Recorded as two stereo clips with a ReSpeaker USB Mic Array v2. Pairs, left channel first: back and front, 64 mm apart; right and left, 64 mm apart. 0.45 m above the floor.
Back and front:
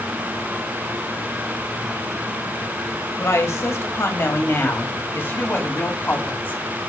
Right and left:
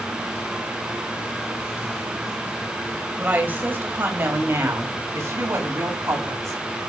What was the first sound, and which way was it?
A woman speaking, 150° left.